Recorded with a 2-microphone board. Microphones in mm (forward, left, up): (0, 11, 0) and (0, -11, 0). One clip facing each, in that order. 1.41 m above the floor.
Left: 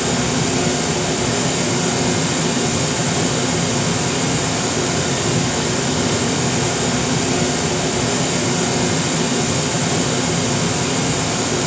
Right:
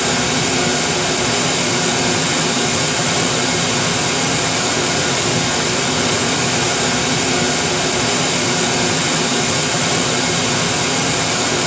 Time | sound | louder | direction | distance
0.0 | running water | right 2 dB | 35° right (ahead or behind) | 3.5 m